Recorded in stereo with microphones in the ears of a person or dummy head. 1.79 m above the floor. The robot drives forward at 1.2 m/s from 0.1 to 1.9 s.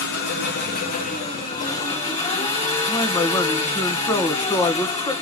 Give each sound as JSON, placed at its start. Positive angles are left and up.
{"t": 0.0, "sound": "an engine running", "side_deg": 60, "distance_m": 2.5}
{"t": 2.9, "sound": "a man speaking", "side_deg": 20, "distance_m": 1.8}